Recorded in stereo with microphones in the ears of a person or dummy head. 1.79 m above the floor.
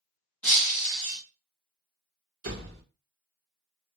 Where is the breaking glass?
5° left (ahead or behind), 1.6 m.